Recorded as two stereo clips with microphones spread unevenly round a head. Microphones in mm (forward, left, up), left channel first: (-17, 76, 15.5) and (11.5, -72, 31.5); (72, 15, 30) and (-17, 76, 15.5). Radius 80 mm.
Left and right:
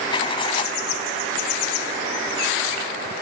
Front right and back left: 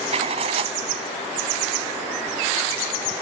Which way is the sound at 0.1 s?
155° left.